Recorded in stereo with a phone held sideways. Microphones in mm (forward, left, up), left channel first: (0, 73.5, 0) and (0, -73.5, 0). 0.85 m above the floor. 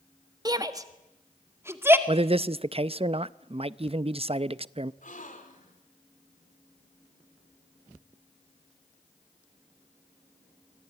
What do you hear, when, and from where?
0.5 s a shout: 25° right (ahead or behind), 1.6 m; by 2.0 s 15° right (ahead or behind), 2.5 m
2.1 s a man speaking: 40° right (ahead or behind), 0.5 m
5.0 s a gasp: 60° left (ahead or behind), 3 m